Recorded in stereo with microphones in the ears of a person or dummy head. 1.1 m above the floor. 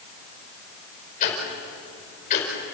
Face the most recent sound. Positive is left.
turn(degrees=40)  # may be behind; listen again after turning